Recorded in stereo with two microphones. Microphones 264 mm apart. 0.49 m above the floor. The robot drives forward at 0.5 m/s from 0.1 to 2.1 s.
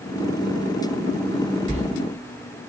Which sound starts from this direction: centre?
A sliding door, at 1.7 s.